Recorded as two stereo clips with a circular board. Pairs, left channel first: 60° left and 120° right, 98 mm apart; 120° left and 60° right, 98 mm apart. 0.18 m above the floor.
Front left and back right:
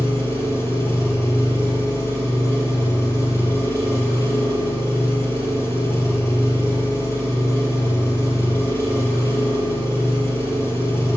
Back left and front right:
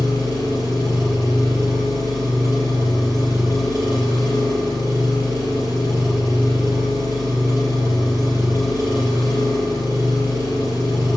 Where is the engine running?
5° right, 3.5 m.